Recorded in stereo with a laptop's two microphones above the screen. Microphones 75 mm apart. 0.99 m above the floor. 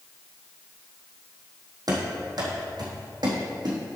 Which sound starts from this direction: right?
Running footsteps, at 1.9 s.